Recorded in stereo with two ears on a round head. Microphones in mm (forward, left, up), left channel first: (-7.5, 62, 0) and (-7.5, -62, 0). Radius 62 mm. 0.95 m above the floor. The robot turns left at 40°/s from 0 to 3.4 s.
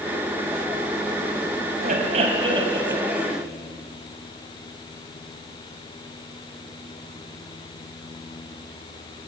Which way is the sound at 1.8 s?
115° right.